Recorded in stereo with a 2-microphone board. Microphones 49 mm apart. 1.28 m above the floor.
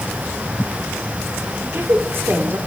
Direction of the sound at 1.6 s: 50° right (ahead or behind).